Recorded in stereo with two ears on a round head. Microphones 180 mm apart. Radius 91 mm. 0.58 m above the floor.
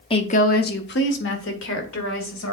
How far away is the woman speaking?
About 0.7 m.